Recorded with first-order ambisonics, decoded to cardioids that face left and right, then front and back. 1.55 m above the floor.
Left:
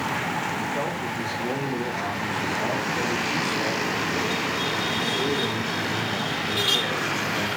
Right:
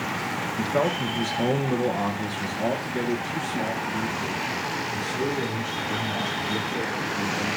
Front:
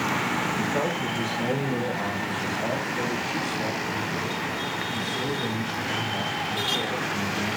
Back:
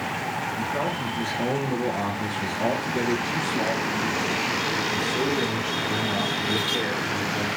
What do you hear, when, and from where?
0.6 s a man speaking: 85° right, 1.4 m; by 7.5 s 175° right, 4.5 m